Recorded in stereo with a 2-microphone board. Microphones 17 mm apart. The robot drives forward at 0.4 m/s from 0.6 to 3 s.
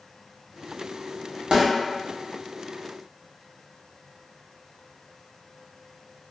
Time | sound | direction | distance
1.5 | a snare drum | 70° right (ahead or behind) | 0.8 m